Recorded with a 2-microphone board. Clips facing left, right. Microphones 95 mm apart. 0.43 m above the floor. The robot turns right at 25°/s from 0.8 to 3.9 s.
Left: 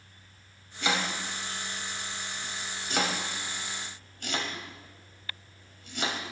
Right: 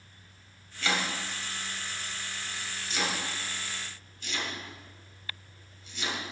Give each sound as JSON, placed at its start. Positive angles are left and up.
{"t": 0.8, "sound": "chopping", "side_deg": 20, "distance_m": 2.5}